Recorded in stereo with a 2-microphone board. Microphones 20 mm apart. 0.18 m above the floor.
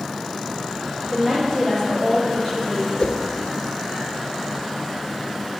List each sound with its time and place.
1.1 s a woman speaking: centre (ahead or behind), 4 m; by 2.9 s 10° left (ahead or behind), 6 m
3.0 s a whoosh: 65° left (ahead or behind), 1.1 m